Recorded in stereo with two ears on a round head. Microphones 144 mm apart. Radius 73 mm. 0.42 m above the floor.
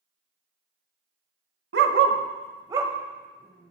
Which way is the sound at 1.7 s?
65° right (ahead or behind).